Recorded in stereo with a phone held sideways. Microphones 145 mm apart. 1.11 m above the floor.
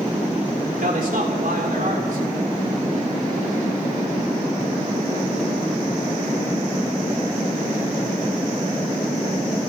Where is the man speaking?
75° right (ahead or behind), 3.5 m.